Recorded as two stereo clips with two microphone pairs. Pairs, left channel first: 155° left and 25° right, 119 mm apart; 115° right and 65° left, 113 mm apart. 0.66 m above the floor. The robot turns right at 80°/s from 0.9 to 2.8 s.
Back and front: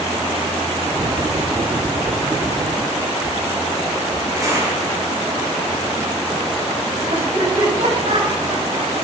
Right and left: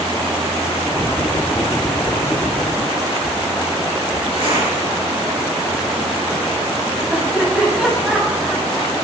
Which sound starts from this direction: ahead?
Laughter, at 7.1 s.